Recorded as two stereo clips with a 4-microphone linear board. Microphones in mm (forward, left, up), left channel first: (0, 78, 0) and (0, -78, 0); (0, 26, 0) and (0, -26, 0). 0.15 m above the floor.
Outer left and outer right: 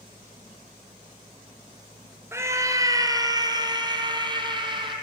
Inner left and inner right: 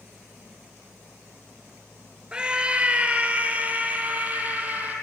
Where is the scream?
15° right (ahead or behind), 1.9 m; by 4.9 s 30° right (ahead or behind), 4.5 m.